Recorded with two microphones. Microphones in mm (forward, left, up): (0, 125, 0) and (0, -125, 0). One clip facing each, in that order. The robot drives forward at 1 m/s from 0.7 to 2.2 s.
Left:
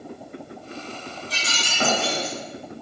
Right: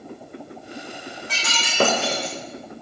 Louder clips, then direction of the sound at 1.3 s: Right 1 dB; 75° right (ahead or behind).